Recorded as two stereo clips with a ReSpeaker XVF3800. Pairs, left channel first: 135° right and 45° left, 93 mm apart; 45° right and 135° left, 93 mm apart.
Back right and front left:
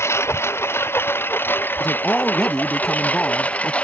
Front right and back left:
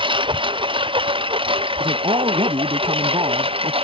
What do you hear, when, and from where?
0.0 s a lawn mower: 160° left; by 3.8 s 150° left
1.8 s a man speaking: 140° left